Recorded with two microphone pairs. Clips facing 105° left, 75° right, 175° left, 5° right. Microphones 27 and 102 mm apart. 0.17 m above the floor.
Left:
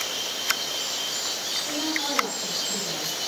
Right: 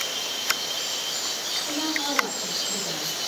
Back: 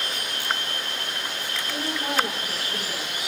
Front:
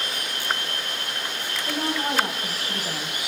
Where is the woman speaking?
Straight ahead, 9.5 m.